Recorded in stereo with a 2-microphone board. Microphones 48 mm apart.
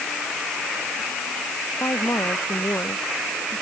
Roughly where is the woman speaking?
Left.